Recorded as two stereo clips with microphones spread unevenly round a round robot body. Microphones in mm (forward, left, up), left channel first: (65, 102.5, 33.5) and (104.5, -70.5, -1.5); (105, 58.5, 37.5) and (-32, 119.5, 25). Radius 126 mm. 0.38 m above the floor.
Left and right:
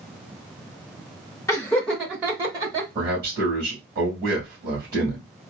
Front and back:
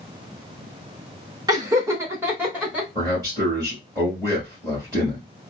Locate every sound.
1.5 s laughter: straight behind, 0.9 m; by 2.9 s 125° right, 1.2 m
3.0 s a man speaking: 135° right, 1.8 m